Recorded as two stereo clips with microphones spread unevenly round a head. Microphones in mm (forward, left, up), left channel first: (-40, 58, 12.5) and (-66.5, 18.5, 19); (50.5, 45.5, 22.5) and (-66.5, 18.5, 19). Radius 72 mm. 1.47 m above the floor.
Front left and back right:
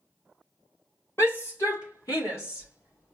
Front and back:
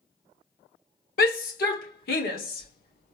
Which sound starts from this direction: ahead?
A shout, at 1.2 s.